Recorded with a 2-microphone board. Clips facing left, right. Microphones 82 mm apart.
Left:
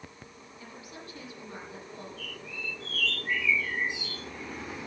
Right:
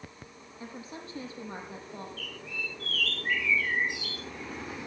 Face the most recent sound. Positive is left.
turn(degrees=-70)  # may be behind; listen again after turning